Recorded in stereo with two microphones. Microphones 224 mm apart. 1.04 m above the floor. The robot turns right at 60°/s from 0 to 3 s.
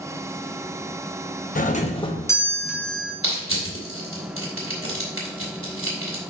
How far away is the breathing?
I don't hear breathing.